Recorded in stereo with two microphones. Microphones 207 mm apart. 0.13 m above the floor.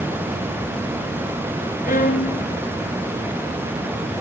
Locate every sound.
1.9 s a violin: 45° left (ahead or behind), 0.8 m